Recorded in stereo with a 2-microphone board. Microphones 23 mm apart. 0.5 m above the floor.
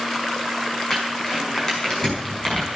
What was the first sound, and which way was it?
Crumpling, 25° left (ahead or behind).